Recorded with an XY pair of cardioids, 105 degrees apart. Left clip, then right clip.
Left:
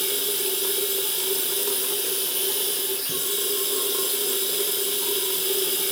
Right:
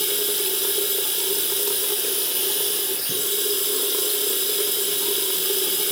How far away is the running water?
About 0.9 m.